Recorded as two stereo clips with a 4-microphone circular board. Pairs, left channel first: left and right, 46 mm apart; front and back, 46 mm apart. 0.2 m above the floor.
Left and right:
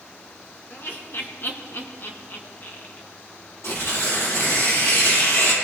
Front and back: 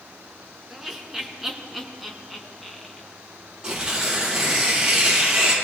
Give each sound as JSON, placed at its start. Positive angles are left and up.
{"t": 0.7, "sound": "laughter", "azimuth_deg": 100, "distance_m": 3.0}
{"t": 3.6, "sound": "tearing paper", "azimuth_deg": 110, "distance_m": 6.0}